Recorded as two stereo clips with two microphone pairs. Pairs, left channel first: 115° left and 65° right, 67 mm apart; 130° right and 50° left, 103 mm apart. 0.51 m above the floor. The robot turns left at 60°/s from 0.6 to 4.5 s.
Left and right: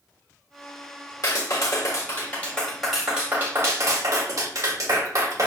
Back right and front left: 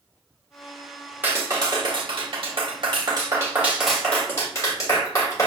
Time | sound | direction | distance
1.2 | a clap | 120° left | 1.5 m